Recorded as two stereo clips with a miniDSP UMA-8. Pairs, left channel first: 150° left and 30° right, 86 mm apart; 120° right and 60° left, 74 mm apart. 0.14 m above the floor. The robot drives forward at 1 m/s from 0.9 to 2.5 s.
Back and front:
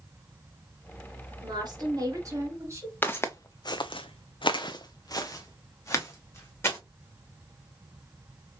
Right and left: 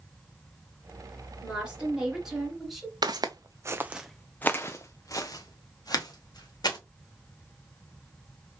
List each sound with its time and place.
1.4 s a woman speaking: 15° right, 2.5 m; by 2.9 s 30° right, 1.6 m
3.0 s footsteps: 80° left, 0.7 m; by 6.8 s 150° right, 1.9 m